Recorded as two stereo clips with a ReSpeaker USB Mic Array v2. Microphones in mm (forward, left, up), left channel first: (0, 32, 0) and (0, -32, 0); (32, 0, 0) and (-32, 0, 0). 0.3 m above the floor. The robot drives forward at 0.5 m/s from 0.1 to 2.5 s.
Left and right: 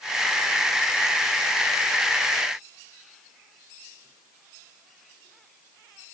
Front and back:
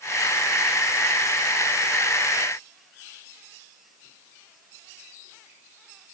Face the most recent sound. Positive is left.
No sound to turn to.